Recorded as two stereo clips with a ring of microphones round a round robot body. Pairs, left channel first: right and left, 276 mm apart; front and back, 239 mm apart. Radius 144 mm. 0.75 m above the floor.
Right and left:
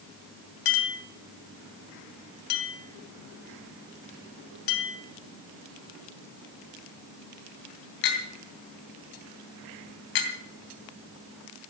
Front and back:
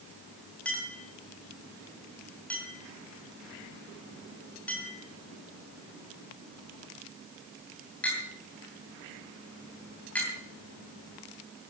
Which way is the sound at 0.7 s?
85° right.